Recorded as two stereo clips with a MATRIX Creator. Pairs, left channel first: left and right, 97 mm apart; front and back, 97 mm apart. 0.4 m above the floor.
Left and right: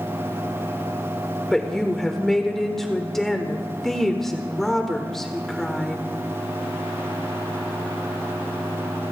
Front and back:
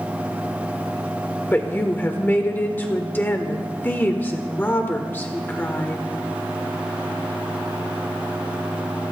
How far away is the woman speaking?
About 1.3 m.